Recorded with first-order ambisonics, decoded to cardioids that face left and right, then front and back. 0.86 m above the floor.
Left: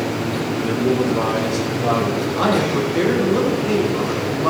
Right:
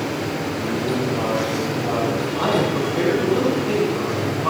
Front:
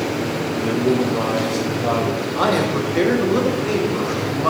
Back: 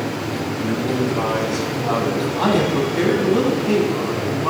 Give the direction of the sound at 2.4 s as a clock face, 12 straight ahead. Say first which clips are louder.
Left 2 dB, even; 11 o'clock.